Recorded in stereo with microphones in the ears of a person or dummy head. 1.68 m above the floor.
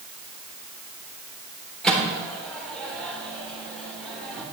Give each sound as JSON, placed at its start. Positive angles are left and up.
{"t": 1.8, "sound": "a microwave", "side_deg": 0, "distance_m": 4.0}